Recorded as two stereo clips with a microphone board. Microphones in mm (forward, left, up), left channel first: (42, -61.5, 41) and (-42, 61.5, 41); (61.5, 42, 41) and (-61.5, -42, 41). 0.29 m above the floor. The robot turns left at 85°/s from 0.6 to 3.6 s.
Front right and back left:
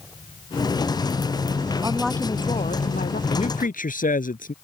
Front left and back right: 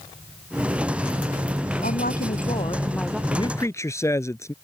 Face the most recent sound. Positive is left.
turn(degrees=-35)